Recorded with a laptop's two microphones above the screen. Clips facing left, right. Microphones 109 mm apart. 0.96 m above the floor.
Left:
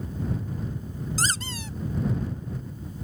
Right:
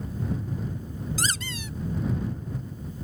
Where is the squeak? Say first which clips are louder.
Left 1 dB; 35° left (ahead or behind).